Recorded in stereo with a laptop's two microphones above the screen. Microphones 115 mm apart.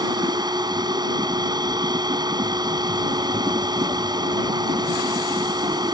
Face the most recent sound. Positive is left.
turn(degrees=-35)  # may be behind; listen again after turning